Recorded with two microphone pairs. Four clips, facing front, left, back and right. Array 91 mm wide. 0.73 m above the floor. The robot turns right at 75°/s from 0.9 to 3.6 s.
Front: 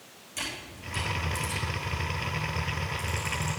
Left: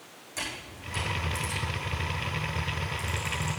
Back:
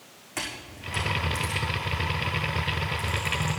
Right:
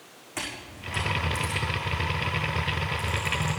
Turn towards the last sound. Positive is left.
turn(degrees=60)